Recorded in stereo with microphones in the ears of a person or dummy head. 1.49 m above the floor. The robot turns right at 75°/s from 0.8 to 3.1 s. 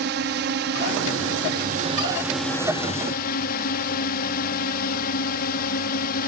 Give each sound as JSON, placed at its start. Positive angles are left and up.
{"t": 0.0, "sound": "a drone", "azimuth_deg": -120}